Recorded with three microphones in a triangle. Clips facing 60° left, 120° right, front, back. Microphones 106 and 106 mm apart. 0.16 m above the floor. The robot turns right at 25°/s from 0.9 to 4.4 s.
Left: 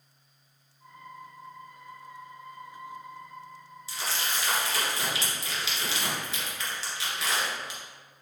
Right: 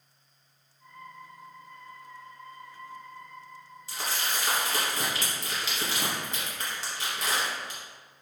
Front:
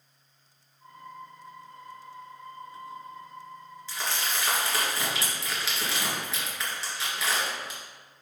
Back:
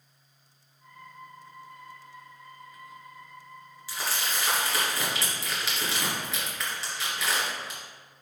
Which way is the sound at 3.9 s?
105° right.